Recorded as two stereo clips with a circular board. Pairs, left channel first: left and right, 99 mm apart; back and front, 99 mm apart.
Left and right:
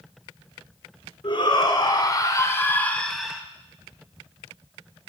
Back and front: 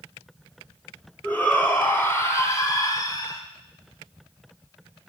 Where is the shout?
105° left, 2 m; by 3.4 s 170° right, 1.3 m.